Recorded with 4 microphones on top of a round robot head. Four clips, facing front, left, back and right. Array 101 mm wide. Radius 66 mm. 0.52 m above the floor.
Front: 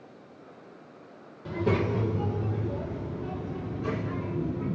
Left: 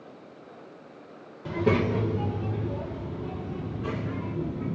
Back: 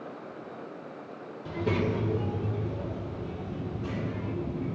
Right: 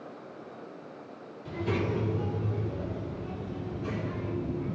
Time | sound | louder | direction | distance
1.4 | a child speaking | left 6 dB, front 2 dB | 80° left | 1.6 m